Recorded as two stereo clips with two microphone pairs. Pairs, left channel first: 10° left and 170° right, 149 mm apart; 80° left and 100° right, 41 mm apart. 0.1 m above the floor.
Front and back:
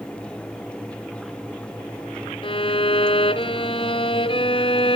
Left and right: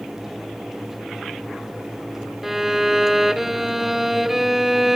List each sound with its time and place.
2.4 s a violin: 20° right, 0.9 m